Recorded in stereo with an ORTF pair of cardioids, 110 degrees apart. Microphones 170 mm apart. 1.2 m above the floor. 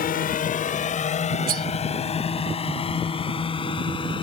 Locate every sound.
0.0 s a drone: 60° left; by 4.2 s 30° left
1.5 s cutlery clinking: 60° right